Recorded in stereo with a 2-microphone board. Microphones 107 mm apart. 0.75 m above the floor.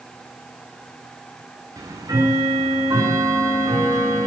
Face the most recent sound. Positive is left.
turn(degrees=-35)  # may be behind; listen again after turning